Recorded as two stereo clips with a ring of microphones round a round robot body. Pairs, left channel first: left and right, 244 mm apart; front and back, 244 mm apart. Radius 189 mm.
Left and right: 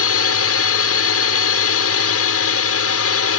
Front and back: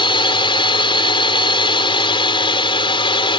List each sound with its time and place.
0.0 s a drone: 70° left